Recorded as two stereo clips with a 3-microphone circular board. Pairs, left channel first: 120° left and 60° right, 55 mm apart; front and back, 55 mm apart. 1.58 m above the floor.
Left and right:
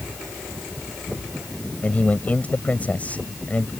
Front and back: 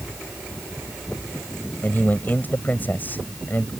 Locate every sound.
1.8 s a man speaking: 55° left